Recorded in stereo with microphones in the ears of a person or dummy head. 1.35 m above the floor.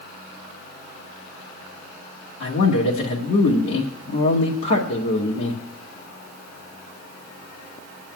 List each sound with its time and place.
2.4 s a man speaking: 65° left (ahead or behind), 1.9 m